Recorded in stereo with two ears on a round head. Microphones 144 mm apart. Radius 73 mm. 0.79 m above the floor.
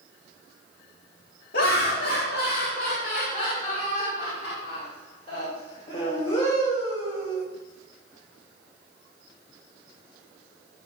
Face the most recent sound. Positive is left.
turn(degrees=25)  # may be behind; listen again after turning